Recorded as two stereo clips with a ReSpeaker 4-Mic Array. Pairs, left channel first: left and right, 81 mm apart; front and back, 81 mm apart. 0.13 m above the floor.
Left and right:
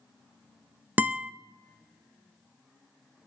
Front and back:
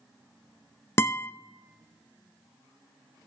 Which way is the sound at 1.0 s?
35° right.